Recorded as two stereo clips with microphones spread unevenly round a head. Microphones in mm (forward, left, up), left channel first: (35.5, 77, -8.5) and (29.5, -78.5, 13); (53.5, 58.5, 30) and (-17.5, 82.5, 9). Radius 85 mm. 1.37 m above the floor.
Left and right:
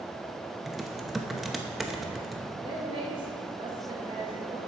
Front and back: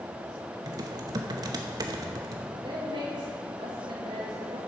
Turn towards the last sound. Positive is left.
turn(degrees=-160)